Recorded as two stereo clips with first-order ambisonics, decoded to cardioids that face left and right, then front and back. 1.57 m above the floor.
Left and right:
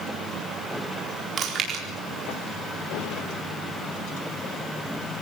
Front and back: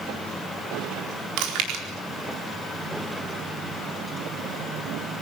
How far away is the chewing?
About 4 m.